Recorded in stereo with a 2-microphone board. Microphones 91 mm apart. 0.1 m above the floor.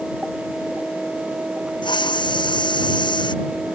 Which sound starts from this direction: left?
A hiss, at 1.8 s.